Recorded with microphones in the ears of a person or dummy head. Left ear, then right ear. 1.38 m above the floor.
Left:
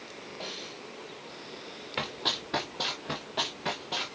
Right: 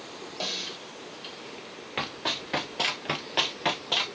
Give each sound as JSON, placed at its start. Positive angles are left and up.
{"t": 0.4, "sound": "a snare drum", "side_deg": -85, "distance_m": 5.0}
{"t": 2.0, "sound": "running footsteps", "side_deg": 0, "distance_m": 1.5}